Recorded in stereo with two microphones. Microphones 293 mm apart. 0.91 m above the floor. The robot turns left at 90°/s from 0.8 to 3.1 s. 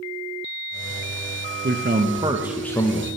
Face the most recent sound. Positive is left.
turn(degrees=130)